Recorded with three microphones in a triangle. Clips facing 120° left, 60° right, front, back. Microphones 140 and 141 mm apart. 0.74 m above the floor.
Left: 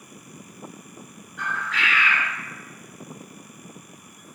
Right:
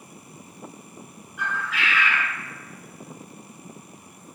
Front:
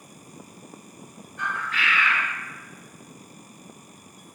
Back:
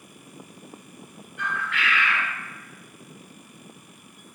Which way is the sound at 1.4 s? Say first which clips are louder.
Even, back 1 dB; 20° left.